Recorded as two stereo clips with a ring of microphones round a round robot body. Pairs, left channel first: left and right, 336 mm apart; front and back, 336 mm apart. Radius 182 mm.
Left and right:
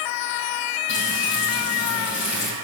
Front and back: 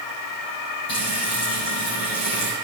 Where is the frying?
45° left, 7 m.